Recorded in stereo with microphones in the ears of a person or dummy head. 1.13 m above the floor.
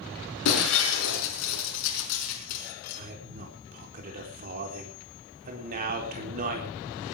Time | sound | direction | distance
0.5 | breaking glass | 80° left | 5 m
3.0 | a man speaking | 45° right (ahead or behind) | 4 m